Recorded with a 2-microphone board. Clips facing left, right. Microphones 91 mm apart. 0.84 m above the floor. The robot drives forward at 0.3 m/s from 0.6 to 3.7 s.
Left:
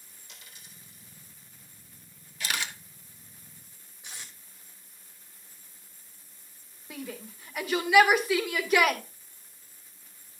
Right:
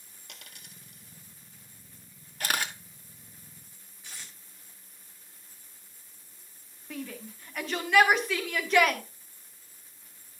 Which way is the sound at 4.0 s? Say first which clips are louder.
Left 2 dB; 20° left (ahead or behind).